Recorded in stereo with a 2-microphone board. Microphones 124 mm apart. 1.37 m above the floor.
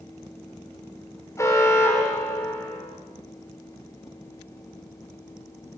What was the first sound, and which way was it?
An alarm, 25° left (ahead or behind).